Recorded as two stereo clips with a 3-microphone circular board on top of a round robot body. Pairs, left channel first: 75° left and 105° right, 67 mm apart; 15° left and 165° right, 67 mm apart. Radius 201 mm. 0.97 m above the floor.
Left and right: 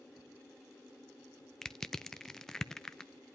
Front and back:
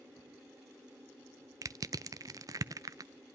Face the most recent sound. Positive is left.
turn(degrees=155)